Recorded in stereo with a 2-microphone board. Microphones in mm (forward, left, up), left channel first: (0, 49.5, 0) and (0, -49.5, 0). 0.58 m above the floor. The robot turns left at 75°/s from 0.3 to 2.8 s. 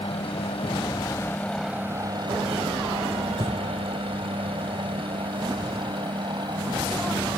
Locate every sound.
0.0 s a helicopter: 65° left (ahead or behind); by 7.4 s 45° right (ahead or behind)
3.4 s breathing: 60° right (ahead or behind)